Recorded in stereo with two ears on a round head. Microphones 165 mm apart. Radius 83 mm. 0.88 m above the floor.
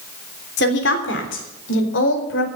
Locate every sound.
0.6 s a woman speaking: 60° left (ahead or behind), 3 m; by 2.5 s 75° left (ahead or behind), 4.5 m